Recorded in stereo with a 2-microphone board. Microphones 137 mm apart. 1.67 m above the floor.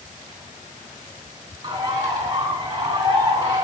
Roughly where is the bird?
Right.